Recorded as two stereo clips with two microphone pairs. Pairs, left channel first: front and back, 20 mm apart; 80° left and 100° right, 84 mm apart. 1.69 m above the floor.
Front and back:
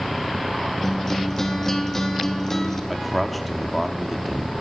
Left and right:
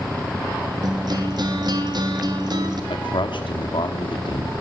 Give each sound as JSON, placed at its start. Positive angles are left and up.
{"t": 0.8, "sound": "a guitar", "azimuth_deg": -70, "distance_m": 3.5}
{"t": 2.9, "sound": "a man speaking", "azimuth_deg": 90, "distance_m": 4.5}